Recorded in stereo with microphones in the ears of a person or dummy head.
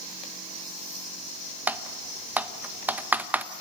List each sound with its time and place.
1.7 s typing on a keyboard: 10° right (ahead or behind), 0.8 m